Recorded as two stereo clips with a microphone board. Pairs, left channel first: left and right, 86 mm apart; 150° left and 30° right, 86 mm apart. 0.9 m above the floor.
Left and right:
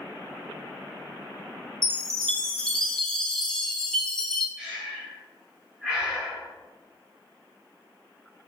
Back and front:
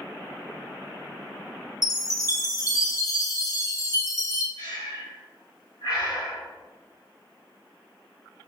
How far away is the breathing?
About 1.5 m.